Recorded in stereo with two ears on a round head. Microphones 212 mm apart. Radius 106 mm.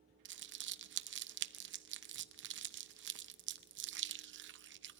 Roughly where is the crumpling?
Right.